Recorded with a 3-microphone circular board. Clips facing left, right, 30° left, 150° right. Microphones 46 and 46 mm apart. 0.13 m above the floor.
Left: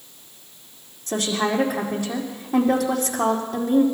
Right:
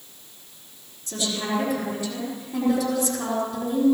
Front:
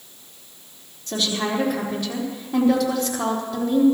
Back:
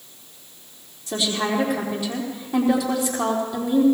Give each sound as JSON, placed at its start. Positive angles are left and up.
{"t": 1.1, "sound": "a woman speaking", "azimuth_deg": 125, "distance_m": 4.5}